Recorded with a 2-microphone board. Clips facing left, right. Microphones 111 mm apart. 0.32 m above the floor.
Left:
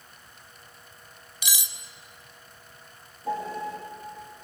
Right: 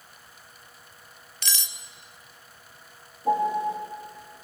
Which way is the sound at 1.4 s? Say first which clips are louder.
Even; 10° left (ahead or behind).